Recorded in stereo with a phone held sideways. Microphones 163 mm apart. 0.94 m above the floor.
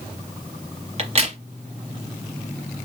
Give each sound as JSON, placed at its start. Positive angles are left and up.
{"t": 1.0, "sound": "a crack", "side_deg": -40, "distance_m": 1.3}